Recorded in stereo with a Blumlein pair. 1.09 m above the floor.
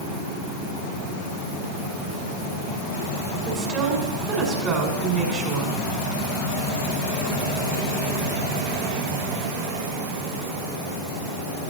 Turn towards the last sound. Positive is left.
turn(degrees=-25)